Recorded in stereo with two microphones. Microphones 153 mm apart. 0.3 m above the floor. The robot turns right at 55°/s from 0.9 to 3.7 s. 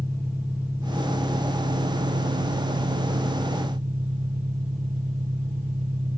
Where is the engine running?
170° left, 4.5 m; by 6.2 s 40° right, 4.5 m.